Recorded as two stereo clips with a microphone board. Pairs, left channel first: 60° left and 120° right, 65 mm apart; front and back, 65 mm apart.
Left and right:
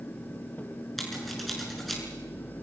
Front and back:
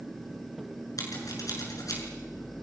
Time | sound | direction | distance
1.0 | scissors | 25° right | 7 m